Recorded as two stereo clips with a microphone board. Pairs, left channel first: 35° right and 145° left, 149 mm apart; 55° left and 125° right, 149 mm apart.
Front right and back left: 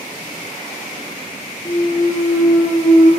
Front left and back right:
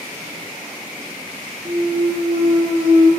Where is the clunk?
90° right, 2.5 m.